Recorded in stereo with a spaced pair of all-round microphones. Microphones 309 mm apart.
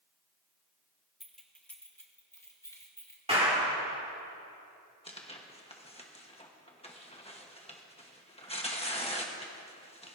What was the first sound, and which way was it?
Keys jangling, centre (ahead or behind).